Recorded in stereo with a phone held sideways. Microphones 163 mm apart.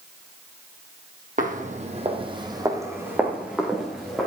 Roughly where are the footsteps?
Right.